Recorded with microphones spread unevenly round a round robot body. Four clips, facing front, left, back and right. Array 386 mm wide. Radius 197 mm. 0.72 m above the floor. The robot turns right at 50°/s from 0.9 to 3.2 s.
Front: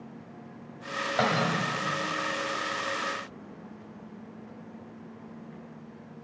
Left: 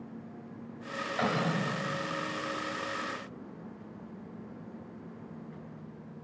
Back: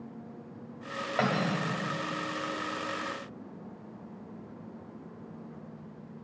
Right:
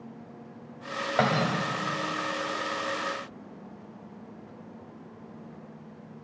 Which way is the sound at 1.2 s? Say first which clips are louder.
Right 5 dB, front 2 dB; 80° right.